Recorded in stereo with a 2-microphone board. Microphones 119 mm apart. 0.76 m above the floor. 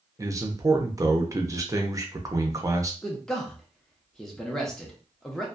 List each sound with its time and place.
0.2 s a man speaking: 25° right (ahead or behind), 0.5 m
3.0 s a man speaking: 5° left (ahead or behind), 0.7 m